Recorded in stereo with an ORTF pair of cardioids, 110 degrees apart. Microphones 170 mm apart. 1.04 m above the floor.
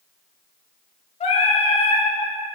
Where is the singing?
40° left, 1.9 m.